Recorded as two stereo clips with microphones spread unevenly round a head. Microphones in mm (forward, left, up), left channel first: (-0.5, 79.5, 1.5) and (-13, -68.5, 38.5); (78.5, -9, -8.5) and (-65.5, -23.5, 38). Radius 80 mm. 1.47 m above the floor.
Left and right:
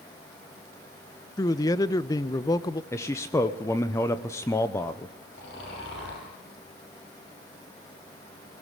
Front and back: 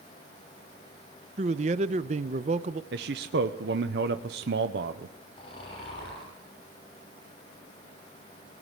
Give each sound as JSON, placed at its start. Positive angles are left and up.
{"t": 1.4, "sound": "a man speaking", "azimuth_deg": 160, "distance_m": 0.7}
{"t": 2.9, "sound": "a man speaking", "azimuth_deg": 155, "distance_m": 0.9}
{"t": 5.3, "sound": "snoring", "azimuth_deg": 65, "distance_m": 8.5}